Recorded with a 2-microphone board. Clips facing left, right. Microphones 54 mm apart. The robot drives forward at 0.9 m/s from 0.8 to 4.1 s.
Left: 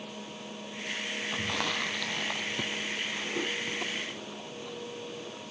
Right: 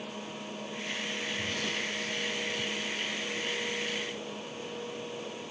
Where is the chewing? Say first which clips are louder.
Left 4 dB; 80° left; by 5.5 s 90° left.